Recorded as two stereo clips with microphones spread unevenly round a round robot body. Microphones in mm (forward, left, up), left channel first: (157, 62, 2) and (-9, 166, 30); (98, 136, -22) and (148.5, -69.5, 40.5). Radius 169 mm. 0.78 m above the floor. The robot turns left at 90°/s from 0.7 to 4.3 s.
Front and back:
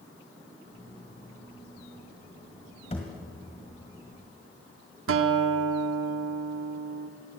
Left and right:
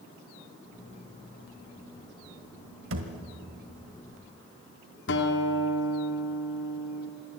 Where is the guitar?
145° left, 1.3 m.